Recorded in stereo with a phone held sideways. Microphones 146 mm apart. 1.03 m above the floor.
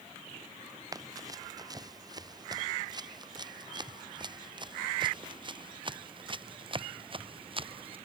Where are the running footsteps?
25° right (ahead or behind); by 8.0 s 35° right (ahead or behind).